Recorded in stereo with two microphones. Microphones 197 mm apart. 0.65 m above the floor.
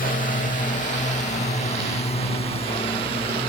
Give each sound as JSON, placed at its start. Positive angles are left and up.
{"t": 0.0, "sound": "a drone", "side_deg": 45}